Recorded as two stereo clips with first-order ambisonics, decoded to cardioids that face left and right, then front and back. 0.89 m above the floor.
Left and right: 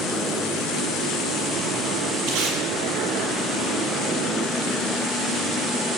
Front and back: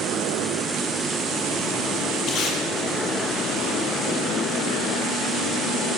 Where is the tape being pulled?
50° right, 9 m.